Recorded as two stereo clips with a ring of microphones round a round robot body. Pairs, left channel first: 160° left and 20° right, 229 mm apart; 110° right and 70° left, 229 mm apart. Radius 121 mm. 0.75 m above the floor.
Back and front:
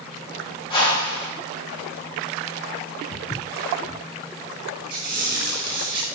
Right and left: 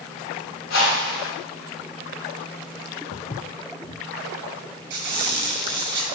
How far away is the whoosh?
About 2.5 m.